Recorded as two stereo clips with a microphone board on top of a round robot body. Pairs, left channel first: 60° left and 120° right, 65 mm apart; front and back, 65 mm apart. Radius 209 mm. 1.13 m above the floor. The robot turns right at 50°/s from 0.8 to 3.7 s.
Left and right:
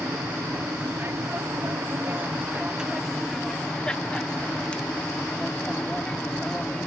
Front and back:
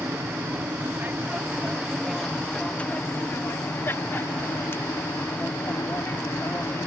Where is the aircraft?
150° right; by 6.9 s 5° right.